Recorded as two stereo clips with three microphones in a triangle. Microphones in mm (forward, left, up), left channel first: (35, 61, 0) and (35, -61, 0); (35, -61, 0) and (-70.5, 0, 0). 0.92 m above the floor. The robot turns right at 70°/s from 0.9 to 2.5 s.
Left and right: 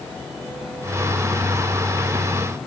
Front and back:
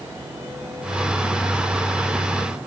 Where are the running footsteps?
I don't hear running footsteps.